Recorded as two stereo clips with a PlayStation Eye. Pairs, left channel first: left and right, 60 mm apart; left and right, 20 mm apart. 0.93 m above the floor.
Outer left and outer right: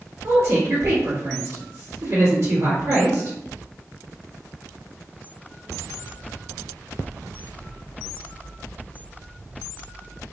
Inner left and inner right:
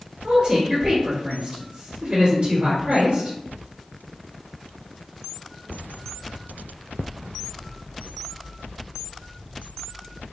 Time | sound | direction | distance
0.2 | a woman speaking | 55° right (ahead or behind) | 1.4 m